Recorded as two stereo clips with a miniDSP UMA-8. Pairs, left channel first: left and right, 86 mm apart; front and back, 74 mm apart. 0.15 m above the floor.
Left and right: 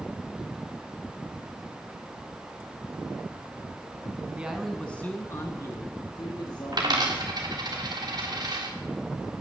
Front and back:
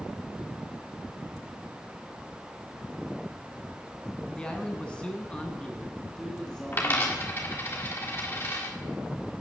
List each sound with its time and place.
4.3 s a man speaking: 50° right, 1.0 m; by 7.3 s 80° left, 3 m
6.7 s a dropped coin: 55° right, 2.5 m